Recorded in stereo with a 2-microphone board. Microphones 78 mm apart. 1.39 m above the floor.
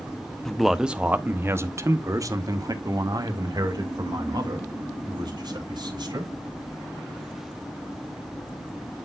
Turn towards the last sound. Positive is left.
turn(degrees=-70)  # may be behind; listen again after turning